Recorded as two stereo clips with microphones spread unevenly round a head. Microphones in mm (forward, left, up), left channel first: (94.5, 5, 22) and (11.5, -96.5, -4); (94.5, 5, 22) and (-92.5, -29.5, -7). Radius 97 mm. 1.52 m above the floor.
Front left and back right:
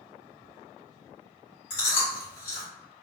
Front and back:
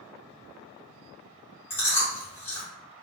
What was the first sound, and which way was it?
Chewing, 90° left.